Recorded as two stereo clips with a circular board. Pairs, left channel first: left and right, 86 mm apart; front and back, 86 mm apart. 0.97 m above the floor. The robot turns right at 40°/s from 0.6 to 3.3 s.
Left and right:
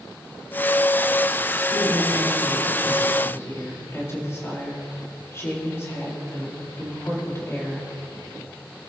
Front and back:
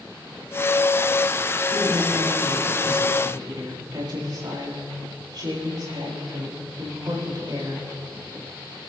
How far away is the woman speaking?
About 7.5 m.